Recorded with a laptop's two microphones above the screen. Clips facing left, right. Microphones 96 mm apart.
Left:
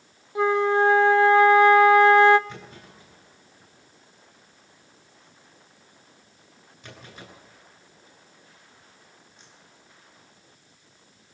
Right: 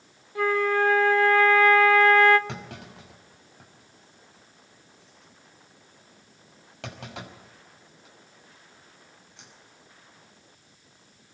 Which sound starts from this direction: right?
A clunk, at 2.5 s.